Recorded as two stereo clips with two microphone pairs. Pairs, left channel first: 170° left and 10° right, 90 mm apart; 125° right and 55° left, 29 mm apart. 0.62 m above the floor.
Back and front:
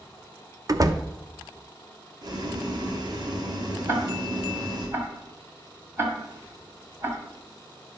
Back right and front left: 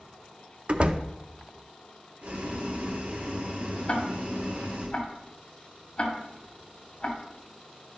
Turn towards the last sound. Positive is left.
turn(degrees=-70)